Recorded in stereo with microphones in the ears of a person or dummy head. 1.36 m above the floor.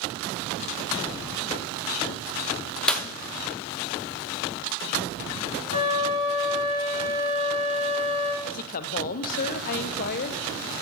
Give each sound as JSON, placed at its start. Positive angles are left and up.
{"t": 2.9, "sound": "a clap", "side_deg": 5, "distance_m": 0.6}
{"t": 5.7, "sound": "a flute", "side_deg": -30, "distance_m": 3.0}
{"t": 8.4, "sound": "a woman speaking", "side_deg": 50, "distance_m": 0.6}